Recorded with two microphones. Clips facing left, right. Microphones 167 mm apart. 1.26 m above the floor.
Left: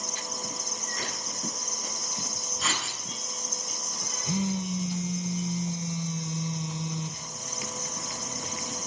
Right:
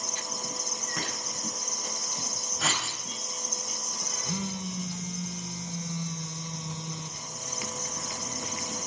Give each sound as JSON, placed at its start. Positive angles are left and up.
{"t": 1.0, "sound": "a clink", "side_deg": -75, "distance_m": 9.5}
{"t": 2.6, "sound": "writing", "side_deg": -65, "distance_m": 8.0}
{"t": 4.2, "sound": "a phone buzzing", "side_deg": 20, "distance_m": 0.8}